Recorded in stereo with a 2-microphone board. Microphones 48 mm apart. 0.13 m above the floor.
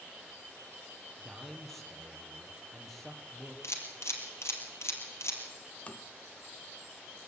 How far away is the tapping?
About 0.8 m.